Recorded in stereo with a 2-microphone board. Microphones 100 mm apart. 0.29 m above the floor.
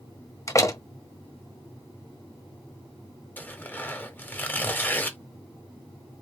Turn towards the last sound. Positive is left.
turn(degrees=20)  # may be behind; listen again after turning